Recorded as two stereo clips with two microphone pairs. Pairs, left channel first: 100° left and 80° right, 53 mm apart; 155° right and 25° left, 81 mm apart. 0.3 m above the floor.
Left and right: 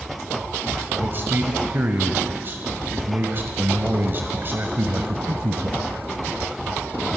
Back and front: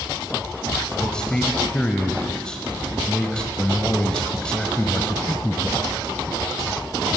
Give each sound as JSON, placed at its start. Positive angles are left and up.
{"t": 1.0, "sound": "a man speaking", "azimuth_deg": -80, "distance_m": 1.2}